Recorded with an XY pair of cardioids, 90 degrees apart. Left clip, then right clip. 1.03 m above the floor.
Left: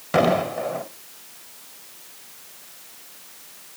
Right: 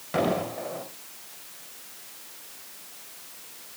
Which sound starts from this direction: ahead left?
An explosion, at 0.1 s.